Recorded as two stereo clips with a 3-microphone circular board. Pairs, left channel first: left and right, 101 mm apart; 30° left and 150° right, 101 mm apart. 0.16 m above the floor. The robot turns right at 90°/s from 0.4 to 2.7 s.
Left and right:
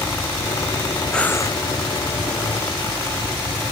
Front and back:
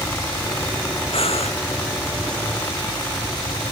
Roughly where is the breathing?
Ahead.